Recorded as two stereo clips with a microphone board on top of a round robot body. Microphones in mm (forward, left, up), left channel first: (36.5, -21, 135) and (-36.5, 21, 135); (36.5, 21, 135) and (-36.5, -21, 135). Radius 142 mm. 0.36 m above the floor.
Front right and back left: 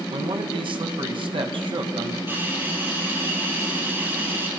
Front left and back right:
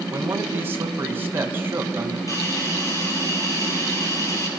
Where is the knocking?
No knocking in this recording.